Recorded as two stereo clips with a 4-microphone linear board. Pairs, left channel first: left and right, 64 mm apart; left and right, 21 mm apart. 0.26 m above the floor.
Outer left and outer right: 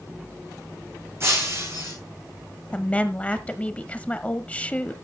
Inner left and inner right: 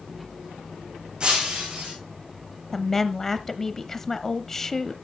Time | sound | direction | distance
1.2 | breaking glass | 40° right (ahead or behind) | 6.5 m
2.7 | a woman speaking | 20° left (ahead or behind) | 1.0 m